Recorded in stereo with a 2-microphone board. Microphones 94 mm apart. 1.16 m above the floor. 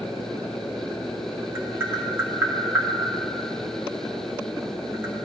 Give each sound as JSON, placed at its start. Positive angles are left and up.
{"t": 1.6, "sound": "tapping", "side_deg": -25, "distance_m": 1.6}